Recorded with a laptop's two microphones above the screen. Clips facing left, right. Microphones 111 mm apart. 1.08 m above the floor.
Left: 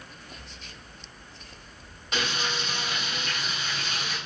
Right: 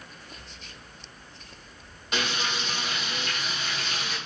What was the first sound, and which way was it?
Frying, centre (ahead or behind).